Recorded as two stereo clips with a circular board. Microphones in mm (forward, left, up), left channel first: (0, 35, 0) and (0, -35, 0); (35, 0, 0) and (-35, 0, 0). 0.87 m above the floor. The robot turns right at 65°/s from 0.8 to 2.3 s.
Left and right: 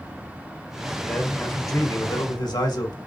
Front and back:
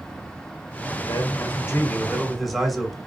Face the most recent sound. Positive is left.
turn(degrees=90)